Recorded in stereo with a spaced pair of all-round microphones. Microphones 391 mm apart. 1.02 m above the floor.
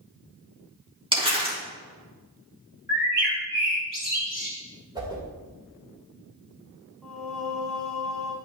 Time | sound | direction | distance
1.1 | crumpling | 15° right (ahead or behind) | 3 m
2.9 | a bird | 25° left (ahead or behind) | 2.5 m
5.0 | a whoosh | 10° right (ahead or behind) | 2.5 m
7.0 | singing | centre (ahead or behind) | 1.4 m